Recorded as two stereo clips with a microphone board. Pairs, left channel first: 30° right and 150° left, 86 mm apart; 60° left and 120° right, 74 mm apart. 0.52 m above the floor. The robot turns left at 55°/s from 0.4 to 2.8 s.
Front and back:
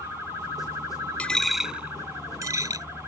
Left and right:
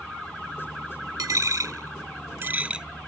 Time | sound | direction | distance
1.2 | a dropped coin | 105° right | ?